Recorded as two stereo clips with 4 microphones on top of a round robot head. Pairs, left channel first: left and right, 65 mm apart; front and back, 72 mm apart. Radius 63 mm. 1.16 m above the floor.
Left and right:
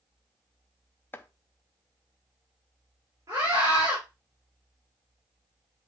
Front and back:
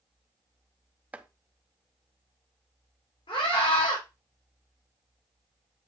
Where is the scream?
35° right, 3.5 m.